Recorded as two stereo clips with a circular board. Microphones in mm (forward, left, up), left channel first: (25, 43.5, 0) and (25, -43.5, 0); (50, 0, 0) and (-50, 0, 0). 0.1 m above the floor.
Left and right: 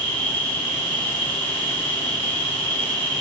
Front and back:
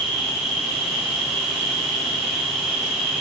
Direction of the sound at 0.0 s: 90° left.